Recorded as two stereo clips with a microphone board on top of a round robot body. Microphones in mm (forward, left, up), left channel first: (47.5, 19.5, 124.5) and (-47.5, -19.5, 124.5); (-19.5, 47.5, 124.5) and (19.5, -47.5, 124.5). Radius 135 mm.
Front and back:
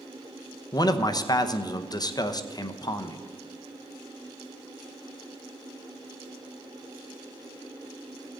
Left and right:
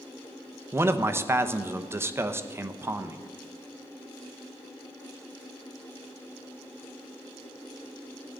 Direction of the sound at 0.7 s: 10° right.